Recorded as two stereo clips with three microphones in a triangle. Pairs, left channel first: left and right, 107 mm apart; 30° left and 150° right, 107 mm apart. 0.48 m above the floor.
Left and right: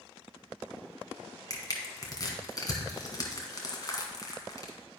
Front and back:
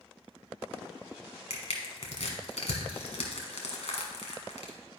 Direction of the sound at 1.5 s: 35° left.